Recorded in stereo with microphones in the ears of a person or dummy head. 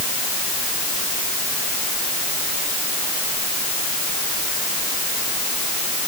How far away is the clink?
I don't hear a clink.